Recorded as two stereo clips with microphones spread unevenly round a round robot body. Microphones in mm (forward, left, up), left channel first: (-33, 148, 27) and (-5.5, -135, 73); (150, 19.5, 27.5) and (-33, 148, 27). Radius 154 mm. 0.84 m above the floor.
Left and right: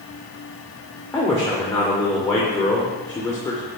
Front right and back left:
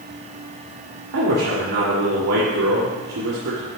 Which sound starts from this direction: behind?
A man speaking, at 1.1 s.